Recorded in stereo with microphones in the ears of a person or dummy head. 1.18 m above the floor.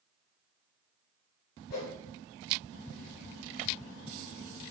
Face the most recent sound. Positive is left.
turn(degrees=55)  # may be behind; listen again after turning